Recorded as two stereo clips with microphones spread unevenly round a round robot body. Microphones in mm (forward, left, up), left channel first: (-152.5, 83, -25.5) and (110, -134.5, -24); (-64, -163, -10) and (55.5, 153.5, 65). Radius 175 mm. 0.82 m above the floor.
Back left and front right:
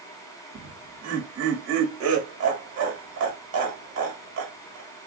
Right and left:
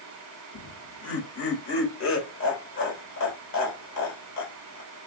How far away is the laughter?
About 1.5 m.